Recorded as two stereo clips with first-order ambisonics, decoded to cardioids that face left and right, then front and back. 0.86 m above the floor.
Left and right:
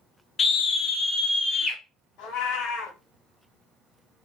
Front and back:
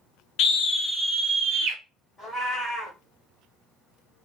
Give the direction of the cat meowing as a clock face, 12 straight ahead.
10 o'clock.